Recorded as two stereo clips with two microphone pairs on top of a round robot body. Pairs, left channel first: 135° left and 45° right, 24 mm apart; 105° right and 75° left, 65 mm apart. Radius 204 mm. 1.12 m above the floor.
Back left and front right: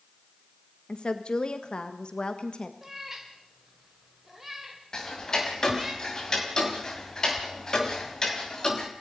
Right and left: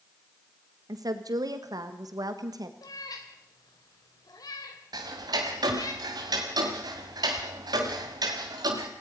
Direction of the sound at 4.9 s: 75° left.